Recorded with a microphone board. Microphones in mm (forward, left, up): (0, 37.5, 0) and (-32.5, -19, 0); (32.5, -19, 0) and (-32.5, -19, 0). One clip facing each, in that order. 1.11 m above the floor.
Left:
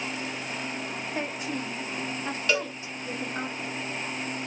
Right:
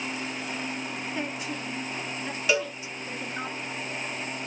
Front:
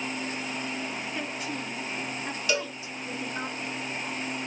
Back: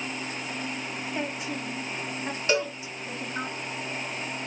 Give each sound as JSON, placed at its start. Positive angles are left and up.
{"t": 1.1, "sound": "a woman speaking", "azimuth_deg": 110, "distance_m": 1.5}
{"t": 2.5, "sound": "a cowbell", "azimuth_deg": 165, "distance_m": 0.9}